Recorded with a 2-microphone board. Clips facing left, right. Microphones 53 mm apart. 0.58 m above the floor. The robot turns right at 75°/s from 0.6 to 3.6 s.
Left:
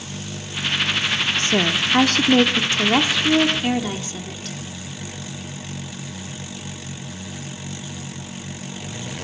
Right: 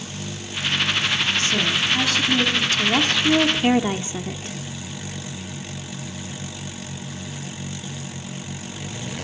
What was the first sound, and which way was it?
A woman speaking, 45° left.